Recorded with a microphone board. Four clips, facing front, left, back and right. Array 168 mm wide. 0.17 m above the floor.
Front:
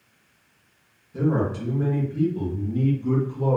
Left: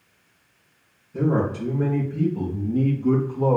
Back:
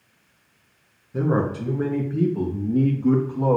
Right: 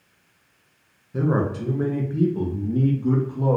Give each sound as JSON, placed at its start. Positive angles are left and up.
{"t": 1.1, "sound": "a man speaking", "azimuth_deg": -130, "distance_m": 2.5}